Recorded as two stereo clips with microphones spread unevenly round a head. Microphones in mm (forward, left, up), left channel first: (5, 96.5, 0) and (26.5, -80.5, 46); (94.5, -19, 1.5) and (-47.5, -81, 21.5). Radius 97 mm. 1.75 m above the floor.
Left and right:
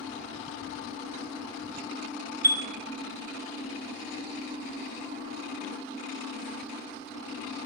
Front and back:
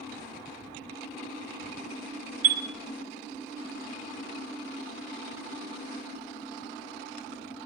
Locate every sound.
2.4 s a chime: 145° right, 0.7 m